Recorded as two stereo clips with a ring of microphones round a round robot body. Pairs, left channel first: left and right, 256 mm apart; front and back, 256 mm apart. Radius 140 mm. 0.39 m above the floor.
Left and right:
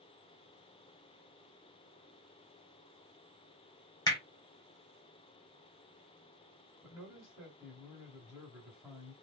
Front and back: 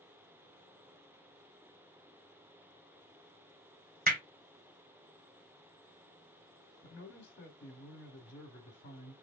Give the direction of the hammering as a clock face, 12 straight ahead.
7 o'clock.